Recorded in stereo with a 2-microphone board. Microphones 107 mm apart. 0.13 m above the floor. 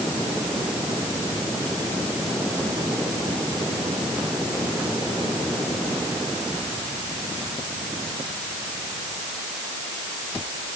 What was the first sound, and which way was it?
Only background noise.